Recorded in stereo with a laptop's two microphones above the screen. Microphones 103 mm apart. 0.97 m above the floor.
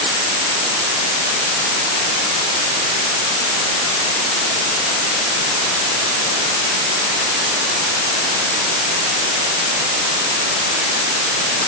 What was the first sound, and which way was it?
Only background noise.